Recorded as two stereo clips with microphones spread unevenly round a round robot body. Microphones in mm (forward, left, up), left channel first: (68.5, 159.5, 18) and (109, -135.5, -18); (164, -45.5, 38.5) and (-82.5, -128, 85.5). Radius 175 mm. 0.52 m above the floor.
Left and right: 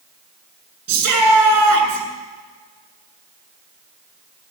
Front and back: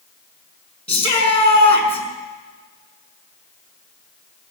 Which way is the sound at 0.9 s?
50° right.